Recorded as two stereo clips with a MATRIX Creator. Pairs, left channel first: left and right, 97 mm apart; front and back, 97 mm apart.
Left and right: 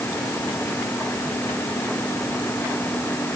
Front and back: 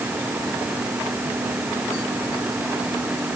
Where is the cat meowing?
I don't hear a cat meowing.